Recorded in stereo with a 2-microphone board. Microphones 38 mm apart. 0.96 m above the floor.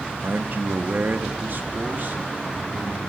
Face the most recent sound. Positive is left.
turn(degrees=-55)  # may be behind; listen again after turning